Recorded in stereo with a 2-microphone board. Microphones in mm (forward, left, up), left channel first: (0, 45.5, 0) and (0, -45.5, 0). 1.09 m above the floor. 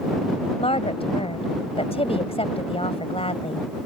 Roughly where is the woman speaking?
Left.